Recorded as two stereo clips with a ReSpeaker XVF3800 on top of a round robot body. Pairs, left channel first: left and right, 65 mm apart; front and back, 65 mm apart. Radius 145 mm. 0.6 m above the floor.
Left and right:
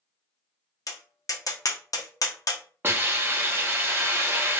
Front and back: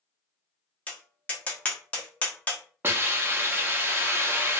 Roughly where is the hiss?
Behind right.